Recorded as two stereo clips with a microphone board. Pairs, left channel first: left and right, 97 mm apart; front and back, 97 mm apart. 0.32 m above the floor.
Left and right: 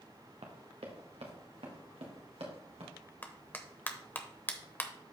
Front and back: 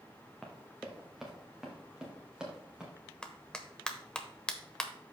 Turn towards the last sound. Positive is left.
turn(degrees=60)